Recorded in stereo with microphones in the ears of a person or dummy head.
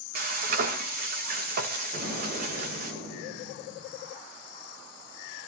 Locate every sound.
0.1 s frying: 50° right (ahead or behind), 1.9 m
1.9 s an explosion: 60° right (ahead or behind), 9 m